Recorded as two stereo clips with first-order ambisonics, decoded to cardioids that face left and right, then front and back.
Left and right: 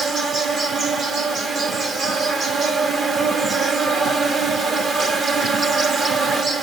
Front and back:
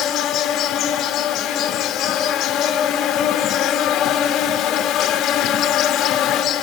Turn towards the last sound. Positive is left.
turn(degrees=-30)